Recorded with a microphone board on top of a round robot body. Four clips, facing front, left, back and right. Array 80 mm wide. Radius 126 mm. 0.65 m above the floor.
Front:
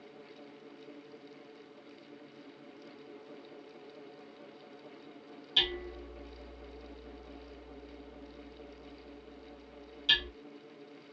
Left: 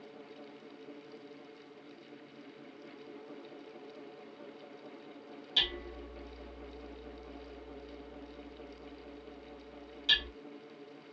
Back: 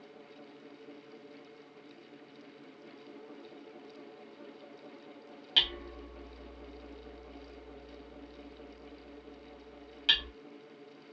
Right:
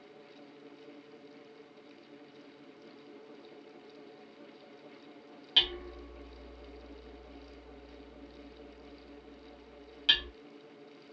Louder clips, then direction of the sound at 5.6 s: Right 3 dB, front 1 dB; 145° right.